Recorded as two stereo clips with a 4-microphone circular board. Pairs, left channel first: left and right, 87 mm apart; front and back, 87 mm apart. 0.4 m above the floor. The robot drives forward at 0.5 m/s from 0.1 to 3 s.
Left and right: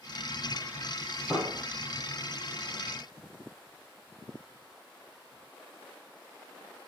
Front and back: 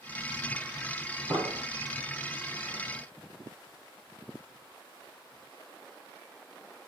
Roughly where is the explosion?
Behind.